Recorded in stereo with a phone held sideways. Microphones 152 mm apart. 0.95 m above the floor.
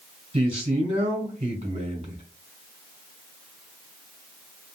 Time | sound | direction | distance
0.3 | a man speaking | 35° right (ahead or behind) | 1.4 m